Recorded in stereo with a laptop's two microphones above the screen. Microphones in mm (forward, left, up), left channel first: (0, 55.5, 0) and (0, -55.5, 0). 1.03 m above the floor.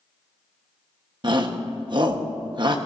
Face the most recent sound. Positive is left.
turn(degrees=-45)  # may be behind; listen again after turning